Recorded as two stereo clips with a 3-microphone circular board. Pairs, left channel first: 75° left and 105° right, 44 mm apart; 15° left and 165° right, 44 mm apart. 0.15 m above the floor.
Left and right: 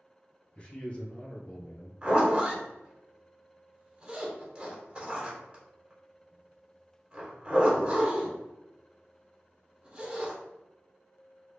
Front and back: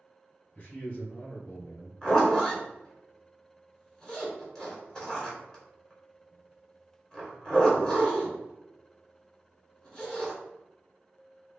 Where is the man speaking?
50° left, 1.9 m.